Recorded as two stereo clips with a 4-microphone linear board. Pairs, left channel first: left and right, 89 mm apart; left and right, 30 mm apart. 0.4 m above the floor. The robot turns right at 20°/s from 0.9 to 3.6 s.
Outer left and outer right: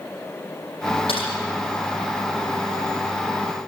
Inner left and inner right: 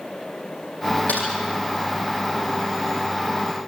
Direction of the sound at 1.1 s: 85° left.